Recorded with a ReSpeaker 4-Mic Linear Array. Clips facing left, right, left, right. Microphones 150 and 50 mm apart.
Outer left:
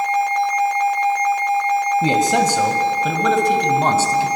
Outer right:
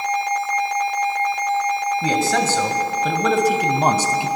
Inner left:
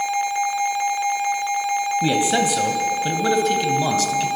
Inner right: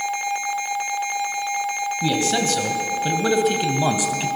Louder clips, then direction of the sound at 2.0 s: Outer left 1 dB, even; 25° left (ahead or behind).